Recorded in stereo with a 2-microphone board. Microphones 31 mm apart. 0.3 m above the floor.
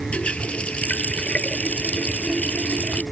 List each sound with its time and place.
0.1 s a running tap: 45° left (ahead or behind)